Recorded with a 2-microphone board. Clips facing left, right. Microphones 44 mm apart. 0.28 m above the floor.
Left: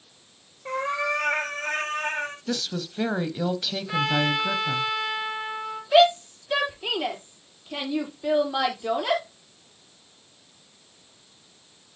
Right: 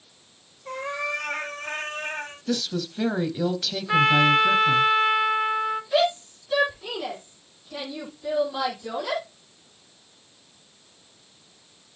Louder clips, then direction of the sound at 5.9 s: Left 7 dB; 55° left (ahead or behind).